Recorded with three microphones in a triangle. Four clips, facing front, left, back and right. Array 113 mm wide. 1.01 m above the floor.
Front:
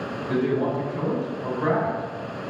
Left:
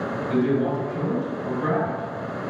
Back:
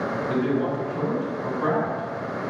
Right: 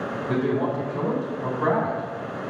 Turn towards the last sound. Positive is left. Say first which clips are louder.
# left 2 dB, front 2 dB
turn(degrees=-90)